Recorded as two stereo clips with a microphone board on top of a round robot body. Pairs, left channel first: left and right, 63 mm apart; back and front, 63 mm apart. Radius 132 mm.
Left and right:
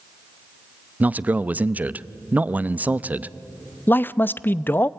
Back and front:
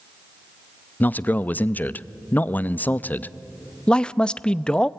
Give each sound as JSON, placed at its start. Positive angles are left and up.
{"t": 1.0, "sound": "a man speaking", "azimuth_deg": -140, "distance_m": 0.6}
{"t": 3.9, "sound": "a man speaking", "azimuth_deg": 115, "distance_m": 0.6}